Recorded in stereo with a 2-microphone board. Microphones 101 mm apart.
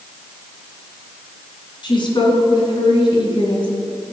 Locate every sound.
1.8 s a woman speaking: 55° left (ahead or behind), 2.5 m